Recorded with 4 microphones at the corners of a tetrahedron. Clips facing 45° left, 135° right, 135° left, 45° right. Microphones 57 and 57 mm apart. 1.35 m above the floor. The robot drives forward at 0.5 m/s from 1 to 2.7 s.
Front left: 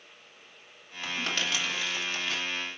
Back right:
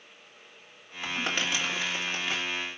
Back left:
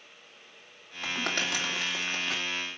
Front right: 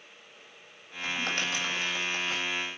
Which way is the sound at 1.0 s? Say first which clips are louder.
Back right 1 dB, even; 150° left.